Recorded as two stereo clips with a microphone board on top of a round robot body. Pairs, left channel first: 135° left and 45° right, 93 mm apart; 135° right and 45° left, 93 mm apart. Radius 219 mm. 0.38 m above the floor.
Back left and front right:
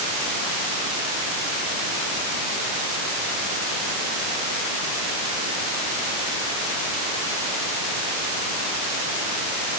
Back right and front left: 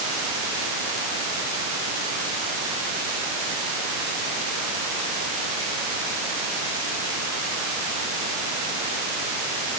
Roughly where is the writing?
No writing in this recording.